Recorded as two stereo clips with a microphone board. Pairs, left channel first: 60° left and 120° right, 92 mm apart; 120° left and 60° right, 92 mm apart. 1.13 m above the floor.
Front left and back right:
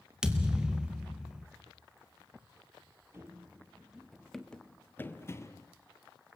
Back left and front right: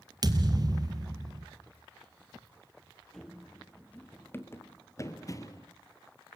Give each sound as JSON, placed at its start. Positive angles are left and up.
{"t": 0.2, "sound": "a thud", "azimuth_deg": -40, "distance_m": 1.6}
{"t": 3.1, "sound": "running footsteps", "azimuth_deg": -155, "distance_m": 1.3}